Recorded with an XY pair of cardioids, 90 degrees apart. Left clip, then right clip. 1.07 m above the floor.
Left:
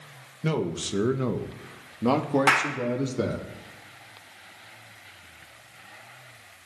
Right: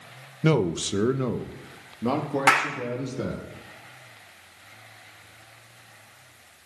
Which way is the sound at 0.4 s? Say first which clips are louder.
Right 5 dB; 50° right.